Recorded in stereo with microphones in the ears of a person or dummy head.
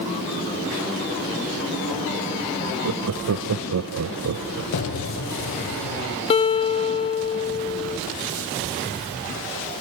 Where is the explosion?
55° left (ahead or behind), 2.5 m.